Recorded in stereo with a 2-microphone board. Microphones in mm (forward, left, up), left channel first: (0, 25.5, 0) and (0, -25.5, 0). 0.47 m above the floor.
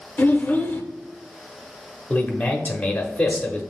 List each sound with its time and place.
0.2 s a child speaking: 35° left (ahead or behind), 0.7 m
2.1 s a man speaking: 25° left (ahead or behind), 0.8 m